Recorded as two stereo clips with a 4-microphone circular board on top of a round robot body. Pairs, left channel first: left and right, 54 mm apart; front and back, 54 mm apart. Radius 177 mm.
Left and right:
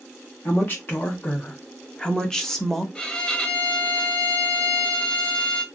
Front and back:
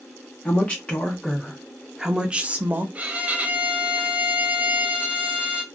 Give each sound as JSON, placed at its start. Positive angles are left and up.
{"t": 0.5, "sound": "a woman speaking", "azimuth_deg": 55, "distance_m": 1.4}
{"t": 3.0, "sound": "a violin", "azimuth_deg": 145, "distance_m": 0.9}